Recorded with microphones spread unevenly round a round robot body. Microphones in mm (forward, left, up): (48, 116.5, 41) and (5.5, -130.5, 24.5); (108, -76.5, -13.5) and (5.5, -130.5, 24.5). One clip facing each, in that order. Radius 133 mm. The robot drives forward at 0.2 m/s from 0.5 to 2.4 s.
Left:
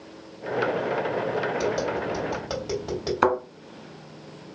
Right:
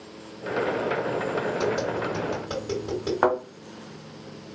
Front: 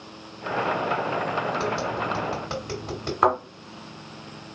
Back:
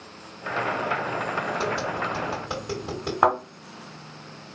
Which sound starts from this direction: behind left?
A thud, at 3.2 s.